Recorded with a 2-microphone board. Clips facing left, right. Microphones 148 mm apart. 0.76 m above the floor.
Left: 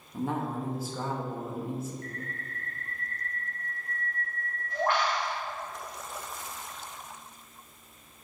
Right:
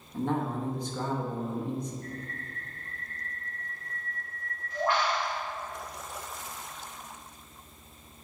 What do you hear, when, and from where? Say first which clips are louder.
0.1 s a man speaking: right 1 dB; 5° left (ahead or behind), 1.1 m
2.0 s a bird: even; 60° left (ahead or behind), 1.9 m